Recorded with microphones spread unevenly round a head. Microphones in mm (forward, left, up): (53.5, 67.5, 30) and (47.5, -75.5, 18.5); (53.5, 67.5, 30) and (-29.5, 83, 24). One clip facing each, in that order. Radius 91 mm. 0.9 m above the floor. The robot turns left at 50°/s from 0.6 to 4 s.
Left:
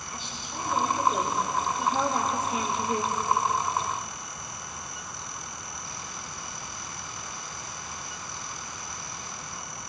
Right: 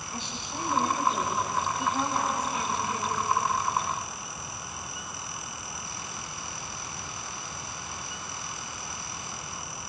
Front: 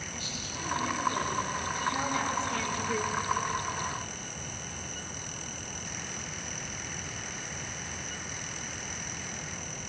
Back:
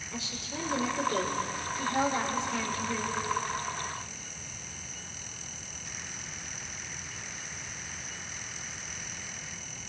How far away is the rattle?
I don't hear a rattle.